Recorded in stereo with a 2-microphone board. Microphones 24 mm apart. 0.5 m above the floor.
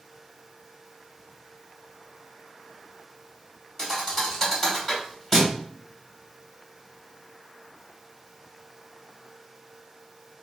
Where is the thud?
15° left (ahead or behind), 1.3 m.